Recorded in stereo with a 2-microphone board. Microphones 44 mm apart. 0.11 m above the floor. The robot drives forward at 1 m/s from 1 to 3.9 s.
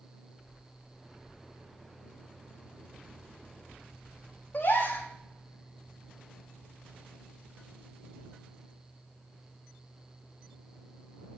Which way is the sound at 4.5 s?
45° left (ahead or behind).